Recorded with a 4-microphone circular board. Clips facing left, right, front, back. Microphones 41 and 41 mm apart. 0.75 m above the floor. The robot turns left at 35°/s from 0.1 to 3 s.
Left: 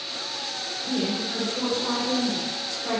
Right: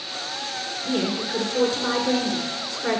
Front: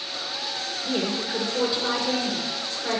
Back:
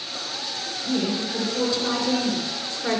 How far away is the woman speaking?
About 2.5 m.